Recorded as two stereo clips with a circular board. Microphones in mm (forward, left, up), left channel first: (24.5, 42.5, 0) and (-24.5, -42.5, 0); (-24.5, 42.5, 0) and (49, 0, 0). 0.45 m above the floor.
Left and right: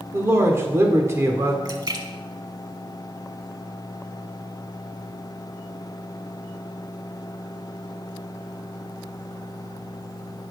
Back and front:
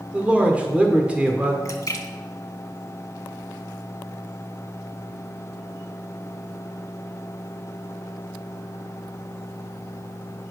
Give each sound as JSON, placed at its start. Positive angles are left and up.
{"t": 0.1, "sound": "a man speaking", "azimuth_deg": -90, "distance_m": 1.1}
{"t": 1.6, "sound": "a splash", "azimuth_deg": -165, "distance_m": 1.1}